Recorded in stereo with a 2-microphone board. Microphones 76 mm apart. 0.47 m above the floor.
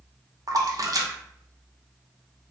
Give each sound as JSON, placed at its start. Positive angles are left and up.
{"t": 0.5, "sound": "a splash", "side_deg": -55, "distance_m": 0.6}